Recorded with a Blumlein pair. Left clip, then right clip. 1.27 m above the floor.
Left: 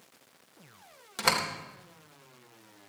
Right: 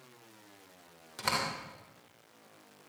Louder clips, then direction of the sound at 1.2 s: Left 5 dB; 70° left.